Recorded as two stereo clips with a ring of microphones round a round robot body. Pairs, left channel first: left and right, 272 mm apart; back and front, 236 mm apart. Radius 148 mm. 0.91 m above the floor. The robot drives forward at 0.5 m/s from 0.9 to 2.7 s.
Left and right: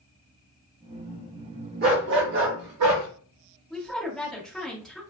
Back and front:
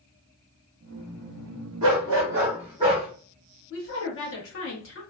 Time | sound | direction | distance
1.8 | a dog barking | 35° right | 0.8 m
3.7 | a woman speaking | straight behind | 1.2 m